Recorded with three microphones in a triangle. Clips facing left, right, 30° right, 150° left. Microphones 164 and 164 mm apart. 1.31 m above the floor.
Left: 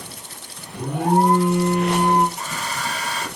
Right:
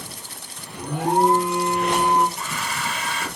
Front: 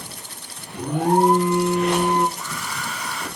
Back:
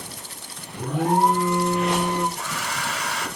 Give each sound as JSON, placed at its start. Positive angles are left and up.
{"t": 0.7, "sound": "an alarm", "azimuth_deg": 45, "distance_m": 2.5}
{"t": 2.4, "sound": "a hair dryer", "azimuth_deg": 140, "distance_m": 1.3}